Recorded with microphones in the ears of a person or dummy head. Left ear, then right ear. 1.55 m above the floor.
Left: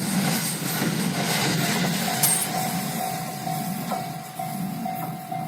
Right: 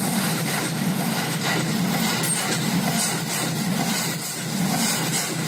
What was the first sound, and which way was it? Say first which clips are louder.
A dropped coin: right 1 dB; 75° left (ahead or behind).